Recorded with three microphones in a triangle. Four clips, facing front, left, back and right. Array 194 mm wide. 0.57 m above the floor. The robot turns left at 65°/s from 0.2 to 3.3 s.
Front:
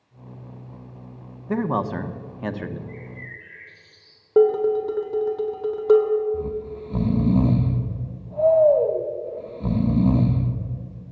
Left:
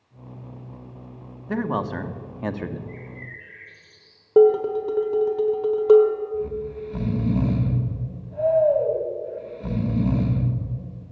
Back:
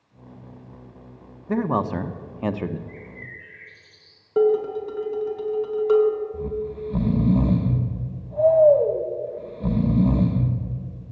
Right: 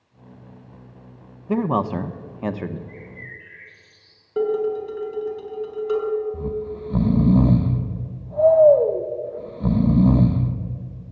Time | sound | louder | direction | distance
1.5 | a man speaking | right 4 dB, back 1 dB | 90° right | 0.6 m
2.9 | a bird | left 1 dB, front 2 dB | 85° left | 5 m
4.4 | dishes clattering | left 6 dB, front 3 dB | 60° left | 1.4 m
6.3 | snoring | even, even | 85° right | 0.8 m